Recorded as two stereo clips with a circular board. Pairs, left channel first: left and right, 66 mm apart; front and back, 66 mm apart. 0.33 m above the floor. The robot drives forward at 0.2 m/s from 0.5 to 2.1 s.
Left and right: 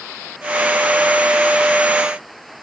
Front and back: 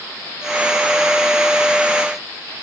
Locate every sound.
Only background noise.